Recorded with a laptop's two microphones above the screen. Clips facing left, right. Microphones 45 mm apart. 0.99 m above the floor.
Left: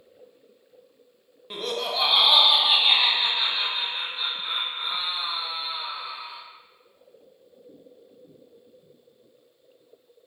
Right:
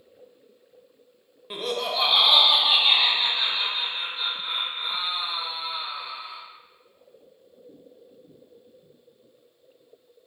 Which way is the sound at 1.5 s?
10° right (ahead or behind).